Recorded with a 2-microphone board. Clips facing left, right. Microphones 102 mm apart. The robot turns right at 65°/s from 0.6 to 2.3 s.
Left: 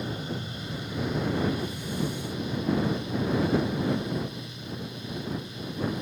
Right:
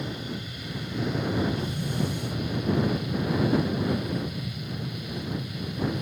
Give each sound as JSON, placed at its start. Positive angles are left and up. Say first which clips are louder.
{"t": 0.0, "sound": "an aircraft", "louder": "left 1 dB", "side_deg": 30}